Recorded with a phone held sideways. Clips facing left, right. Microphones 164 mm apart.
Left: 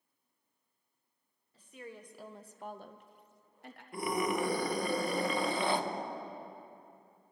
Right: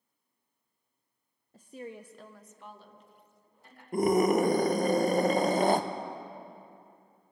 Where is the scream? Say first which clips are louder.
Right 9 dB; 45° right (ahead or behind), 0.8 m.